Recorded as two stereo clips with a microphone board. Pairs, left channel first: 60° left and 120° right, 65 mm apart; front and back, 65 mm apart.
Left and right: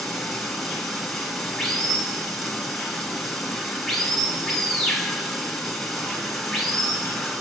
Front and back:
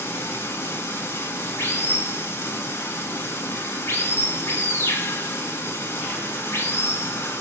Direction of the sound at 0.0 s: 25° right.